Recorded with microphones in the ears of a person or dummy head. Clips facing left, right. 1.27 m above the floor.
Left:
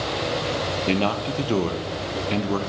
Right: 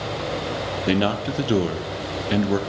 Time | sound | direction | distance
0.9 | a man speaking | 10° right (ahead or behind) | 0.6 m